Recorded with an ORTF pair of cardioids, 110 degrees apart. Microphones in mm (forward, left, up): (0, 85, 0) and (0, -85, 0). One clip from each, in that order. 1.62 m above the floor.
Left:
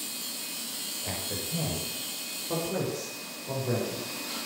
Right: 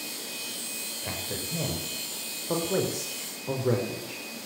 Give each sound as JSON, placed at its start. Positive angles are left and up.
{"t": 1.0, "sound": "a man speaking", "azimuth_deg": -20, "distance_m": 8.0}